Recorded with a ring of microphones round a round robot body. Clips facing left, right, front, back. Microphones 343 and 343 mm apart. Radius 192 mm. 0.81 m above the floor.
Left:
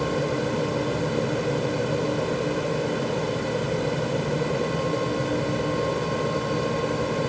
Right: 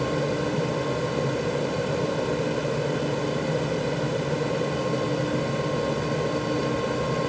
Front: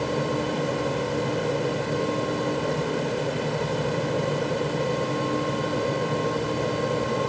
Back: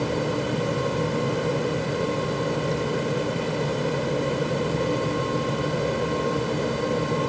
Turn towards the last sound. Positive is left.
No sound to turn to.